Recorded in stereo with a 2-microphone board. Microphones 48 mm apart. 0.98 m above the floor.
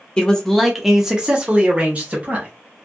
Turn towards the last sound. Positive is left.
turn(degrees=-35)  # may be behind; listen again after turning